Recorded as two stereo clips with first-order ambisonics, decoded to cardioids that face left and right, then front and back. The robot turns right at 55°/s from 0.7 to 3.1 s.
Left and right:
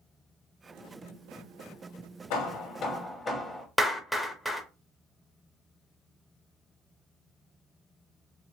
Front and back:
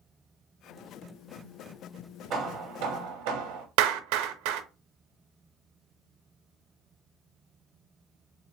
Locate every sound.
2.3 s hammering: 120° left, 0.7 m; by 3.7 s 165° left, 0.7 m
3.8 s a clap: straight behind, 0.5 m